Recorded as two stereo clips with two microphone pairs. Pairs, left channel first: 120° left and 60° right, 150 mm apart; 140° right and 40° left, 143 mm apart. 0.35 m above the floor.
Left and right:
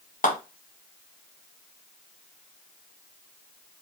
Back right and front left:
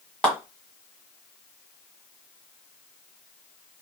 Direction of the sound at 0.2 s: 140° left.